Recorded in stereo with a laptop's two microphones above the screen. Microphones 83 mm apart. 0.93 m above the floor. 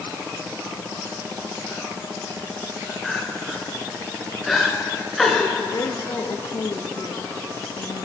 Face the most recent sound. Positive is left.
turn(degrees=55)  # may be behind; listen again after turning